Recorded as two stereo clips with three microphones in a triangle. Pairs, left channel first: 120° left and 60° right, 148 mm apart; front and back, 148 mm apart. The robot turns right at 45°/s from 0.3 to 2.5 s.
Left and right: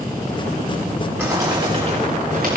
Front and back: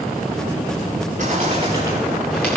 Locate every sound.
1.2 s a bird: 140° right, 7.5 m; by 2.6 s 80° right, 7.5 m